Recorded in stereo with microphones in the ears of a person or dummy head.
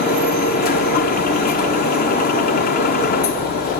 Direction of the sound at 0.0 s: 45° left (ahead or behind).